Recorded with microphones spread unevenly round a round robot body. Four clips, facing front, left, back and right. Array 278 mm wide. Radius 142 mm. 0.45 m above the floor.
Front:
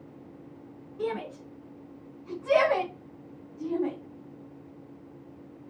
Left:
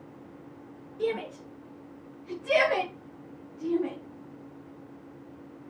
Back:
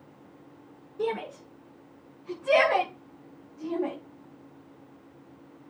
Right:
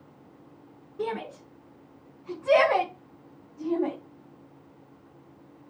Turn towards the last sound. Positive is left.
turn(degrees=-125)